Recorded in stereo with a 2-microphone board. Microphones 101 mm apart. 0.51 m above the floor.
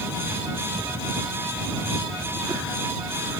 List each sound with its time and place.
Only background noise.